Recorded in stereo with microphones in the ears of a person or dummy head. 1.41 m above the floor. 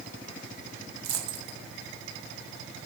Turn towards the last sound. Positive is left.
turn(degrees=-75)  # may be behind; listen again after turning